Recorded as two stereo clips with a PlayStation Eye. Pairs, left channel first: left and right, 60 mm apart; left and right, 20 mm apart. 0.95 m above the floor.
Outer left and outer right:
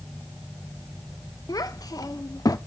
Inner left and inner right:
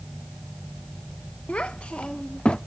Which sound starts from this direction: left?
A child speaking, at 1.5 s.